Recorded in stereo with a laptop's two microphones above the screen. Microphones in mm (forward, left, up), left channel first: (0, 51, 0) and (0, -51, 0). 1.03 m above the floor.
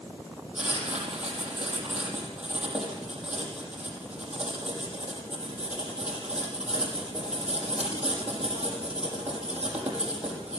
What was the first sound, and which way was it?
Writing, 10° right (ahead or behind).